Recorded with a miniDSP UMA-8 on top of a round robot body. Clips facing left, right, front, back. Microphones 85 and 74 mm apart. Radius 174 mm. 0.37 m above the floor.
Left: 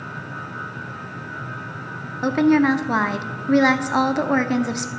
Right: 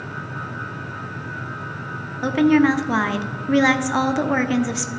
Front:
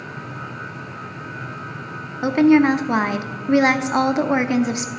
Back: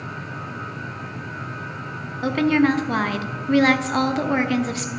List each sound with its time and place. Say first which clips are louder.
2.2 s a woman speaking: right 1 dB, front 5 dB; 30° left, 1.0 m